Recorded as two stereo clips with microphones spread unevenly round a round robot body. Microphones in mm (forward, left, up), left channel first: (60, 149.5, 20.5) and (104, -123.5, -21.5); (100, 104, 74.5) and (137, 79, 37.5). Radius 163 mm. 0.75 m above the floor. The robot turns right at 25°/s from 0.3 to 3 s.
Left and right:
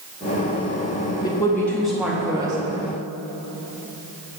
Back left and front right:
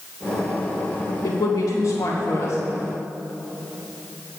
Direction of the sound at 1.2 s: Straight behind.